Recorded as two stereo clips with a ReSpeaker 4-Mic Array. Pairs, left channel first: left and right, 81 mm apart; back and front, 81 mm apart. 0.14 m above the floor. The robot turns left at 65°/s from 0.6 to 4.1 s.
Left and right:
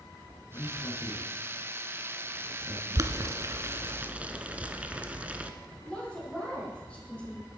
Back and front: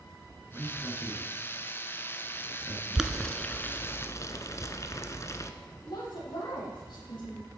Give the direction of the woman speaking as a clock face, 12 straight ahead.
6 o'clock.